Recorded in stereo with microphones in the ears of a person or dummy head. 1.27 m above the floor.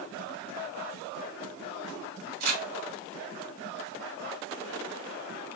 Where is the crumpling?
45° right (ahead or behind), 2.0 m.